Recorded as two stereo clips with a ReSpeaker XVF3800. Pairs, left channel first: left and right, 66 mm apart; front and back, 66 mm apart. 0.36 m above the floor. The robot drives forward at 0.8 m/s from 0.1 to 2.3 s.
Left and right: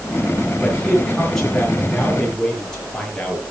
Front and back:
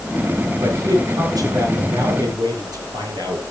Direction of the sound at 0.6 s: 170° left.